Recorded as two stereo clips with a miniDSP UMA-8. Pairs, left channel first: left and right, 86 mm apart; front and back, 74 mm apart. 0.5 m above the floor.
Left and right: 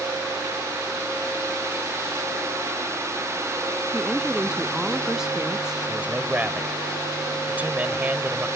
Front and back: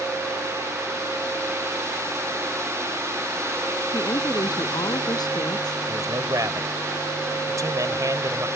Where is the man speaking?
155° right.